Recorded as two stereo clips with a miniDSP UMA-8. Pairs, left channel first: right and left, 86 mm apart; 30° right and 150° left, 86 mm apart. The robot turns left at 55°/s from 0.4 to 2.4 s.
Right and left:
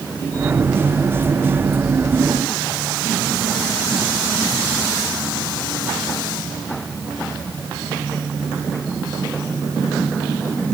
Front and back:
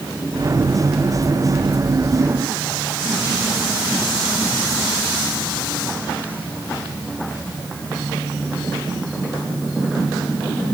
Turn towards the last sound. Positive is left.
No sound to turn to.